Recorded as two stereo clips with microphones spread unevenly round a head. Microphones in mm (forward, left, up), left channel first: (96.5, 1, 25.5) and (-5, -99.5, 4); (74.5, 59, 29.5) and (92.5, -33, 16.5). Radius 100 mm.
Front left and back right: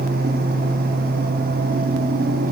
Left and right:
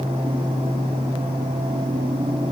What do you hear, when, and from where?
Only background noise.